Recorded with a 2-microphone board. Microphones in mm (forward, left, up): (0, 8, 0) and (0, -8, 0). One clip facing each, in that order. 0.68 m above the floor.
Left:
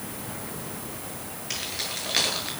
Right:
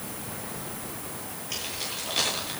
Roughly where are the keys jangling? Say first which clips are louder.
Left 2 dB; left.